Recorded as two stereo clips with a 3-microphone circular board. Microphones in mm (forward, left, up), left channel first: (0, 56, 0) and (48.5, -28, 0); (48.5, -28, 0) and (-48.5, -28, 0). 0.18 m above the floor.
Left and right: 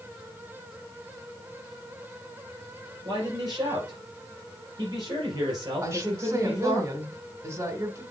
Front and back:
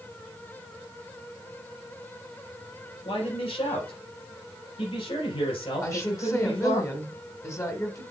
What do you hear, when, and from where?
3.0 s a man speaking: 15° right, 4 m
5.8 s a woman speaking: 25° right, 1.7 m